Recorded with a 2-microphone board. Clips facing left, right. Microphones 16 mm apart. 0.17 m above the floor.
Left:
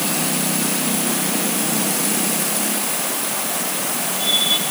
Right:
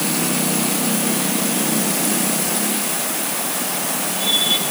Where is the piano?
No piano in this recording.